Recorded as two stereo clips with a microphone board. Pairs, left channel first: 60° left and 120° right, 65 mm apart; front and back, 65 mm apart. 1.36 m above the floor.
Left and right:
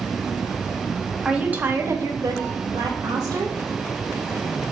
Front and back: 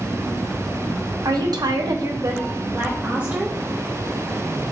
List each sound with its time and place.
1.2 s a woman speaking: 160° left, 0.7 m; by 3.6 s 105° right, 1.1 m